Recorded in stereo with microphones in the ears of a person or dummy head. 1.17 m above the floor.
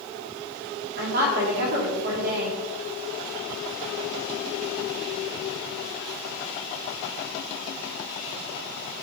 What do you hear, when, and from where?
1.0 s a woman speaking: 55° right (ahead or behind), 2.5 m